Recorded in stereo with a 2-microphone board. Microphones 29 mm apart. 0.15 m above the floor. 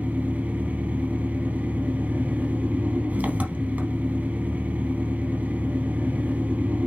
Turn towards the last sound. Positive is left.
turn(degrees=-65)  # may be behind; listen again after turning